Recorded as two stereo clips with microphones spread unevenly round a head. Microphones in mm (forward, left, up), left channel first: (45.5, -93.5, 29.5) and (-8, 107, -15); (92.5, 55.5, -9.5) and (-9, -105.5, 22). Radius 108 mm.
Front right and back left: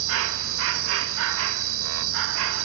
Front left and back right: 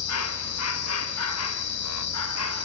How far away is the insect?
About 0.8 m.